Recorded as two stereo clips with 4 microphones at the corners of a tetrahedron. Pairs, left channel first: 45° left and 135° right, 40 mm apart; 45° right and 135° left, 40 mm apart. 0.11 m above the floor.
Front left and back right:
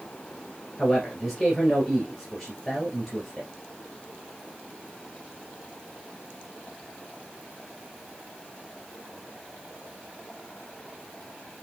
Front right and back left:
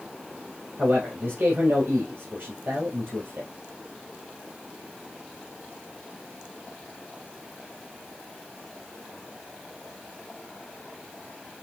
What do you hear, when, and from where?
0.8 s a man speaking: 130° left, 2.5 m